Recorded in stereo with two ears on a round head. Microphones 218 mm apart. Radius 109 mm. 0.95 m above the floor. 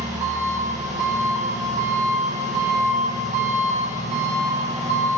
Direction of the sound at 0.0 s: 30° right (ahead or behind).